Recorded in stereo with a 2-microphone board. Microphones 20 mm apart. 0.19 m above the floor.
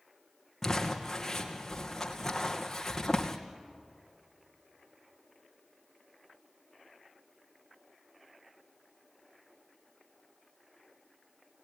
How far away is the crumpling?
About 2.5 m.